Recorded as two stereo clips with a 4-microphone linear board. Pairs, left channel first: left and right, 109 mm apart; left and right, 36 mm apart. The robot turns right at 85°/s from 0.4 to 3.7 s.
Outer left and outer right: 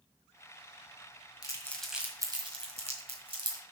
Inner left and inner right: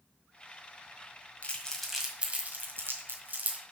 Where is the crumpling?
40° left (ahead or behind), 1.6 m; by 3.6 s 35° right (ahead or behind), 1.6 m.